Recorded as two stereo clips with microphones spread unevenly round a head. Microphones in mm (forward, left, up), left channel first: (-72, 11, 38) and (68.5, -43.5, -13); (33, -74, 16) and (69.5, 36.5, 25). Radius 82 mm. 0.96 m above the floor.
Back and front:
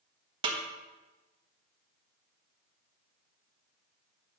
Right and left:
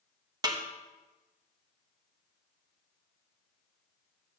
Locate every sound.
0.4 s a snare drum: 20° left, 1.2 m